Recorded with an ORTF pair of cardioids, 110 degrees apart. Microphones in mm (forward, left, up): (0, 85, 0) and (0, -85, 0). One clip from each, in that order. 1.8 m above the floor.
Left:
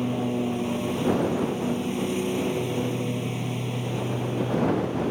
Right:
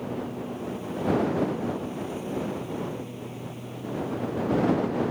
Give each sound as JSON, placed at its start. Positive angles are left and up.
{"t": 0.0, "sound": "a lawn mower", "azimuth_deg": 65}